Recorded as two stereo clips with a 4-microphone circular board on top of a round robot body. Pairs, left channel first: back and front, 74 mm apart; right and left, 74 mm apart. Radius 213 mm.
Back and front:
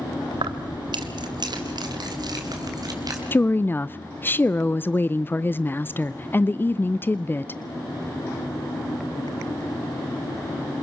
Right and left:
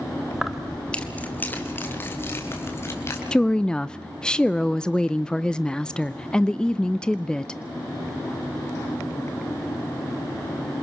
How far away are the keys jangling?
About 1.2 m.